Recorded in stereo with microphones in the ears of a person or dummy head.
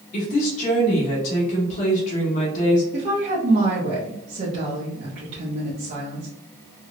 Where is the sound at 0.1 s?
45° left (ahead or behind), 1.3 m.